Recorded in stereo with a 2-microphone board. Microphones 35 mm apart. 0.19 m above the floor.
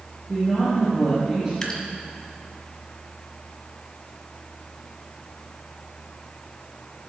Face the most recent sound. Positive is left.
turn(degrees=10)  # may be behind; listen again after turning